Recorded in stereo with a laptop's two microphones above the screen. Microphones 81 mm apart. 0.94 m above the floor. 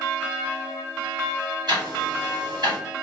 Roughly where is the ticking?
Right.